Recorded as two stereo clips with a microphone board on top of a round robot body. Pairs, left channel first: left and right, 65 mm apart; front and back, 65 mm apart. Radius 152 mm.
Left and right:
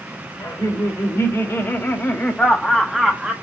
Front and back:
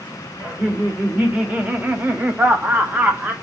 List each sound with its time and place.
0.4 s laughter: 110° left, 1.9 m; by 3.3 s 145° right, 1.1 m